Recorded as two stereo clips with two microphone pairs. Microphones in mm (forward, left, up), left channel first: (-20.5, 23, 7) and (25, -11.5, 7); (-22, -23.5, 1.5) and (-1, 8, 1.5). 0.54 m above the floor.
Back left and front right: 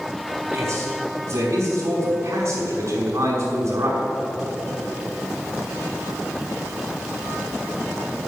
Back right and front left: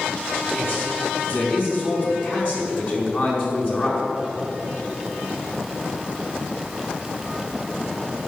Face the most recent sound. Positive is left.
turn(degrees=-75)